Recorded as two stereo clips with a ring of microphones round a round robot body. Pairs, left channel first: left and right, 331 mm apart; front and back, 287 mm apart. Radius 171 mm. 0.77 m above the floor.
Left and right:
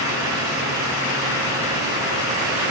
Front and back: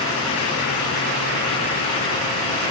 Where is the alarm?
I don't hear an alarm.